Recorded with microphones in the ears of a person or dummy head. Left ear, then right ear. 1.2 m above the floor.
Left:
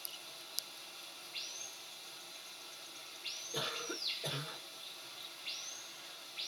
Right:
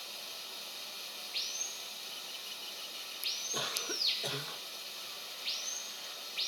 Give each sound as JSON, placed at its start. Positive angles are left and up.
{"t": 0.0, "sound": "running water", "side_deg": -45, "distance_m": 0.8}
{"t": 3.5, "sound": "a cough", "side_deg": -35, "distance_m": 1.3}